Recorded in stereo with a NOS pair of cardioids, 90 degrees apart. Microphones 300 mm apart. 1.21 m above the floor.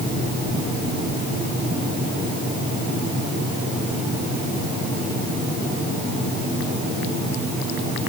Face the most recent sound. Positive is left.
No sound to turn to.